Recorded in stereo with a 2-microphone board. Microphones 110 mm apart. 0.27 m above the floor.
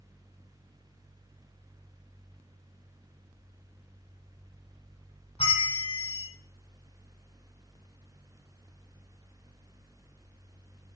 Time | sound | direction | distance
5.4 | a bell | 65° left (ahead or behind) | 3.5 m